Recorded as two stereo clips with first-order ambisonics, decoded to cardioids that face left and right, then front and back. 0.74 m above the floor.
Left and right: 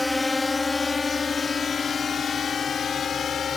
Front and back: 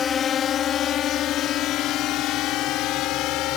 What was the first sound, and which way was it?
A drone, 20° left.